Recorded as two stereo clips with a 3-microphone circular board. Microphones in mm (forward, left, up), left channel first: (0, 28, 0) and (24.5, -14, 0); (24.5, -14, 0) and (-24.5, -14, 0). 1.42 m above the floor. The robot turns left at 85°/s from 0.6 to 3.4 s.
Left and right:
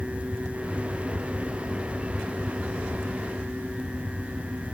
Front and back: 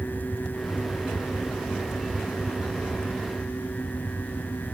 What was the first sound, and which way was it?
Only background noise.